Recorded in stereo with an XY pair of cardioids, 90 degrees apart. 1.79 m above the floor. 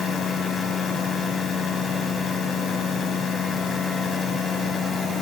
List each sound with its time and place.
0.0 s a machine running: 65° left